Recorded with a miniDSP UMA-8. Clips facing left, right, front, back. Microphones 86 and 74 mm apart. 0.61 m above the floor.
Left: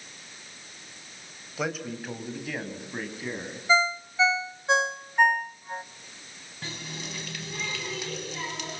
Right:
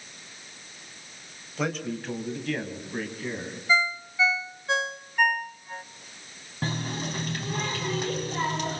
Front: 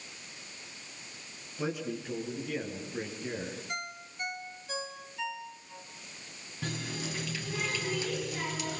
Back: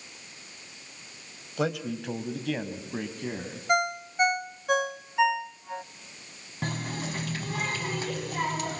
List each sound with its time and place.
1.6 s a man speaking: 175° left, 3.5 m; by 3.6 s 170° left, 5.5 m
3.7 s a ringtone: 160° left, 0.6 m
6.6 s a running tap: 140° right, 3.5 m